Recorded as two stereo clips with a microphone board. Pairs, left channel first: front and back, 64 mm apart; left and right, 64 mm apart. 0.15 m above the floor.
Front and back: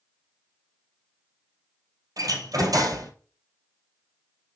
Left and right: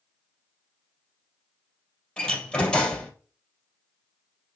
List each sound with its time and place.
2.2 s a door slam: 160° left, 2.5 m